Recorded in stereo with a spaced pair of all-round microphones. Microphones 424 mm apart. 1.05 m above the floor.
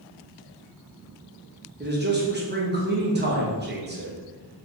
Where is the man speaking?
25° right (ahead or behind), 0.9 m.